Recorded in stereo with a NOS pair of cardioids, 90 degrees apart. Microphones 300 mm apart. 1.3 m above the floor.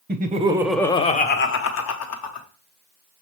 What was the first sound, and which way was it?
Laughter, 35° right.